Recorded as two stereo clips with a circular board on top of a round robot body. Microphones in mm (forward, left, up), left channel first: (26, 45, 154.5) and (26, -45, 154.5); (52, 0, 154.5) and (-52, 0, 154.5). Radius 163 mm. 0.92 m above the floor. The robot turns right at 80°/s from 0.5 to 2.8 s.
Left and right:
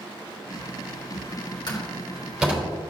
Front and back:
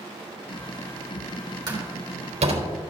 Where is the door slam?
130° left, 3.5 m; by 2.7 s 150° right, 3.5 m.